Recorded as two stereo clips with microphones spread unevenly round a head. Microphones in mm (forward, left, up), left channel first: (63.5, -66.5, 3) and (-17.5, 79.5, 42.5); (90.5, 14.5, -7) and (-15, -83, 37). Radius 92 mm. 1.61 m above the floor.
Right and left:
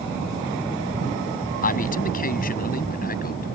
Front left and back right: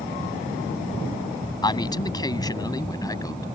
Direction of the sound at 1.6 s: 20° right.